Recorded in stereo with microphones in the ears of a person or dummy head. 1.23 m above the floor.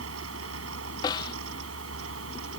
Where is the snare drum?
15° left (ahead or behind).